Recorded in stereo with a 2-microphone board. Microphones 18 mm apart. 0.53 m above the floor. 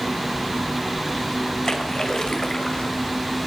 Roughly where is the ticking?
I don't hear ticking.